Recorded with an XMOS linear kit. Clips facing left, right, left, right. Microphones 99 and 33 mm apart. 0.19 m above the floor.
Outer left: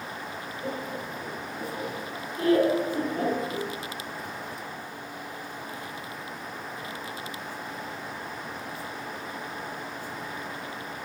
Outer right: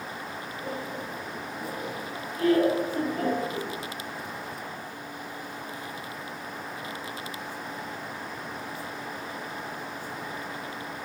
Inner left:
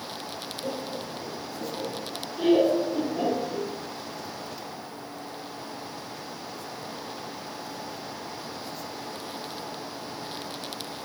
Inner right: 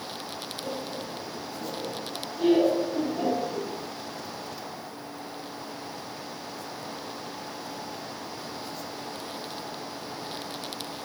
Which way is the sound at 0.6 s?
40° left (ahead or behind).